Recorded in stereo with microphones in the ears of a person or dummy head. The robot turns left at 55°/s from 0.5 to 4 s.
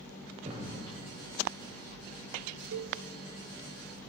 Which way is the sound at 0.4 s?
40° right (ahead or behind).